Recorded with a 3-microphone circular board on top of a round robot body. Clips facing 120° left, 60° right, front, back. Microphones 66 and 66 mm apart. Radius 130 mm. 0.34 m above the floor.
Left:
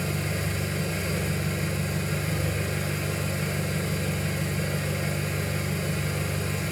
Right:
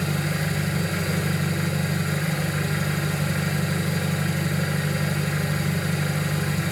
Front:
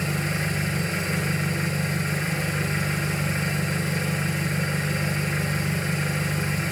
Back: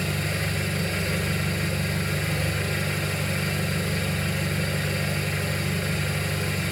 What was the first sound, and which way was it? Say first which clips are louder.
An engine running: right 4 dB, front 1 dB; 70° right.